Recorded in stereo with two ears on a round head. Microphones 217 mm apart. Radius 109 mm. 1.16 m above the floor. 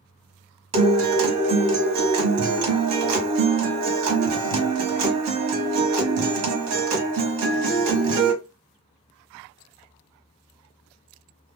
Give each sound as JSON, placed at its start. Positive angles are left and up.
{"t": 0.7, "sound": "a guitar", "side_deg": -70, "distance_m": 1.1}